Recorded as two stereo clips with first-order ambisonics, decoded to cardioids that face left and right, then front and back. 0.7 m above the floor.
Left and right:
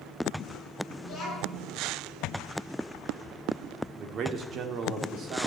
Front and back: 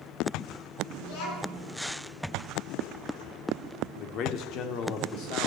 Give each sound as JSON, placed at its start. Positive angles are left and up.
{"t": 1.0, "sound": "a child speaking", "azimuth_deg": 10, "distance_m": 6.5}
{"t": 4.0, "sound": "a man speaking", "azimuth_deg": -35, "distance_m": 1.7}